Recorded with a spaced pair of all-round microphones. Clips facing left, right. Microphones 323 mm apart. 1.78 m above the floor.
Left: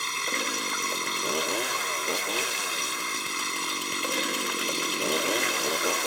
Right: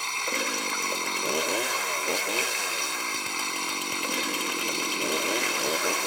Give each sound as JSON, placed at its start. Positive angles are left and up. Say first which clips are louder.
{"t": 0.0, "sound": "running water", "louder": "right 1 dB", "side_deg": 25}